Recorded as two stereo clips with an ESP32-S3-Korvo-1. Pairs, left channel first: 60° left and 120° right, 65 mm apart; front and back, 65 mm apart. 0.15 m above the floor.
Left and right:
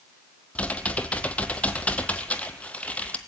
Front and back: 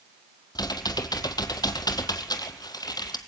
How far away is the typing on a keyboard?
About 1.7 m.